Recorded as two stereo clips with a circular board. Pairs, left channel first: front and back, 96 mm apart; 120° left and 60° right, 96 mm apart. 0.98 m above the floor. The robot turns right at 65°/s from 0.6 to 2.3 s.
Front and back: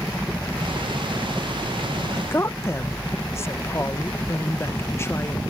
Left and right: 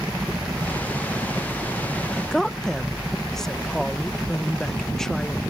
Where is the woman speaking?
25° left; by 5.4 s 40° left.